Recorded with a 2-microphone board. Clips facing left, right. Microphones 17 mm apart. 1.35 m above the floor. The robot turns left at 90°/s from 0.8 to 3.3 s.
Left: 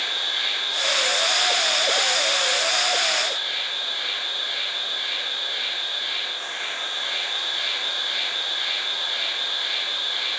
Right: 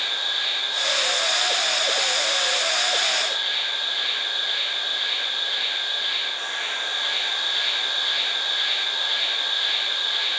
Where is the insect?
165° left, 1.2 m; by 10.4 s 60° right, 1.2 m.